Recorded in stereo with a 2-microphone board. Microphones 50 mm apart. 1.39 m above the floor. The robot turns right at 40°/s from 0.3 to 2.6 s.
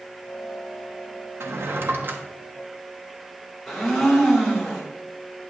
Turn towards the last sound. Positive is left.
turn(degrees=0)  # may be behind; listen again after turning